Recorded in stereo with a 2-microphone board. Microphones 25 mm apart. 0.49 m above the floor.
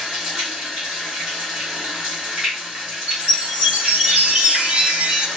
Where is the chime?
55° right (ahead or behind), 1.0 m.